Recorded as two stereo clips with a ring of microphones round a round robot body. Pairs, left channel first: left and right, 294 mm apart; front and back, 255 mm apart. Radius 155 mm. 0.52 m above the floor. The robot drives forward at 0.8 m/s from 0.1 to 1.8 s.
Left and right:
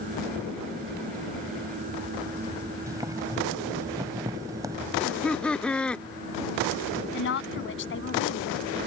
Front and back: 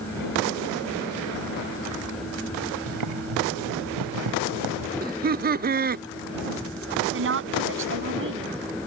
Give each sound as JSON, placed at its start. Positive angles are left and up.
{"t": 2.9, "sound": "boiling", "azimuth_deg": -170}
{"t": 5.0, "sound": "laughter", "azimuth_deg": 175}
{"t": 7.1, "sound": "a woman speaking", "azimuth_deg": 140}